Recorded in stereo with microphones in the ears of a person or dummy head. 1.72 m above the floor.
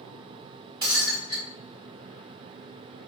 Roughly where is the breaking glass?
Right.